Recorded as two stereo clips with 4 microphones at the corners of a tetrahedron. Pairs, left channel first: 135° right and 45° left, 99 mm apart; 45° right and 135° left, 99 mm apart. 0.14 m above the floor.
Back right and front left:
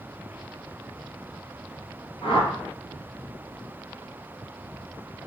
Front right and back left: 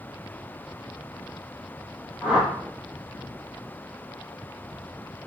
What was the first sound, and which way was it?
A whoosh, 140° right.